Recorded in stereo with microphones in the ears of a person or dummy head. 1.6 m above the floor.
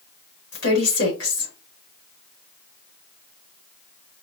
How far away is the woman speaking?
About 2.5 m.